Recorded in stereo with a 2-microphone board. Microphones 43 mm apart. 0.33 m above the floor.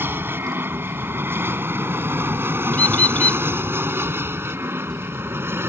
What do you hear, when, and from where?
0.0 s an aircraft: 60° right (ahead or behind); by 5.7 s 70° right (ahead or behind)
2.7 s a bird: 40° left (ahead or behind)